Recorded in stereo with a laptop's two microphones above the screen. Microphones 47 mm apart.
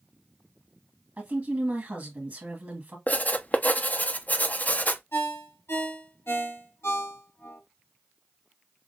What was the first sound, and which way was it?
A woman speaking, 50° right (ahead or behind).